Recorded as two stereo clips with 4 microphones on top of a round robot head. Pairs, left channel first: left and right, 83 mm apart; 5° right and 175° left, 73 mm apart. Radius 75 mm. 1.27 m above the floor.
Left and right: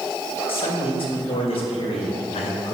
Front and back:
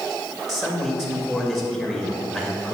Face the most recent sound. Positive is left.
turn(degrees=90)